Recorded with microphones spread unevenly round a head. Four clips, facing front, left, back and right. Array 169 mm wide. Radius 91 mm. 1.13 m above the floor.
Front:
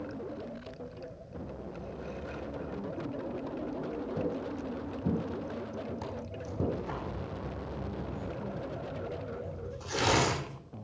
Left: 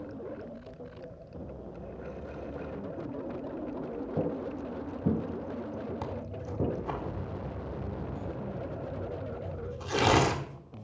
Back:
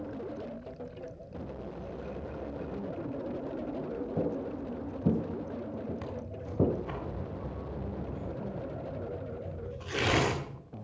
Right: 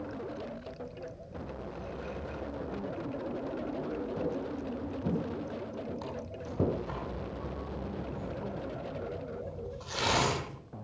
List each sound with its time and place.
4.2 s footsteps: 140° left, 2.5 m; by 6.8 s 165° right, 1.5 m
6.0 s tearing paper: 95° left, 1.5 m